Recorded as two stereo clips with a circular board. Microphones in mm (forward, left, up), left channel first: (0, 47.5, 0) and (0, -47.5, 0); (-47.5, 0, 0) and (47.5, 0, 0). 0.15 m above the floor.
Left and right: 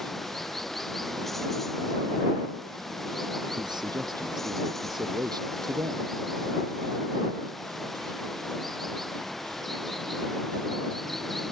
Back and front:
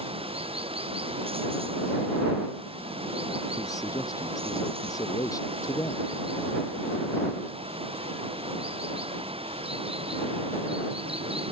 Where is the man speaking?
130° right.